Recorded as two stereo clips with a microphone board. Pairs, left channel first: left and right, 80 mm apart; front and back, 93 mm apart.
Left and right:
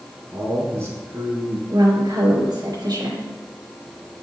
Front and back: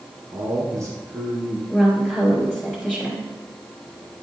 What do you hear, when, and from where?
0.3 s a man speaking: 150° right, 1.6 m; by 1.6 s 115° right, 1.6 m
1.7 s a woman speaking: 90° right, 2 m